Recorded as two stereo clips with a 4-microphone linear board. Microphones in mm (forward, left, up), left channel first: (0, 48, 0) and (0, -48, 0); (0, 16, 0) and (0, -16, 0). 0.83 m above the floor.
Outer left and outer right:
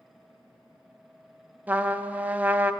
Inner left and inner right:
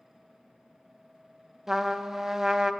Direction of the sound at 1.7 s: 15° right (ahead or behind).